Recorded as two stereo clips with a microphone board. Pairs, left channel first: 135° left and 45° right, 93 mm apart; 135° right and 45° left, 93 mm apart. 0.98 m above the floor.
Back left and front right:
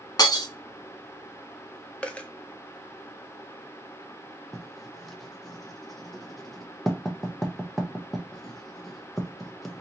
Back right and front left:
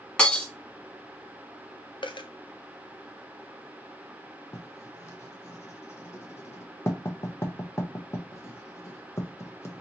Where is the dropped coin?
150° right, 0.6 m.